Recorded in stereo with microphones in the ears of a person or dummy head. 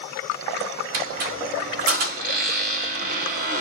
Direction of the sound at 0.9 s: 35° right (ahead or behind).